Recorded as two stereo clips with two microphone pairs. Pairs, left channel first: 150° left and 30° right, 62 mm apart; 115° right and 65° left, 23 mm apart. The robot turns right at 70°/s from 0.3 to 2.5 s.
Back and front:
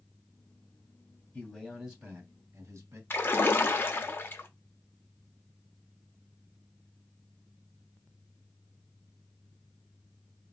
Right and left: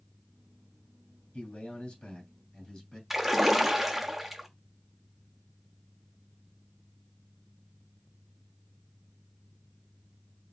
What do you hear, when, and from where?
1.3 s a man speaking: 145° right, 2.5 m; by 3.0 s 65° right, 2.5 m
3.1 s a splash: 140° left, 0.8 m